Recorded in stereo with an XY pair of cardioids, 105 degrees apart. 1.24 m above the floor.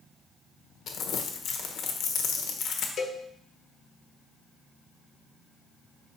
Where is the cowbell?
55° left, 0.8 m.